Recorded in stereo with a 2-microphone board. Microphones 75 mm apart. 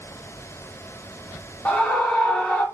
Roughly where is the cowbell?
No cowbell in this recording.